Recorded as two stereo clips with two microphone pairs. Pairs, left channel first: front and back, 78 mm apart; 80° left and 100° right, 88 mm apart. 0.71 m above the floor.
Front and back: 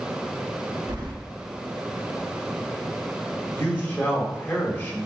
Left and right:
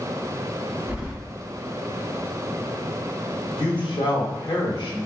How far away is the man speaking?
About 1.5 m.